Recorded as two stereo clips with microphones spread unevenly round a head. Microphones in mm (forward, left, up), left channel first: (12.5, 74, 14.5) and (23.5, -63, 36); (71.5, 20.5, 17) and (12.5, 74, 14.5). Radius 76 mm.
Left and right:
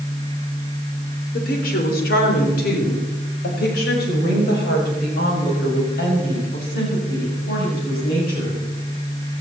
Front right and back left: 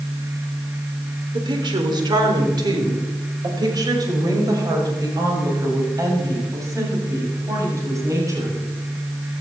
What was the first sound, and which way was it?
A woman speaking, 115° left.